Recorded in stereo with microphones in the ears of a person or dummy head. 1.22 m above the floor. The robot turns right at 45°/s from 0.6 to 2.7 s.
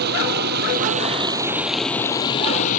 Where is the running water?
55° right; by 2.8 s 40° left.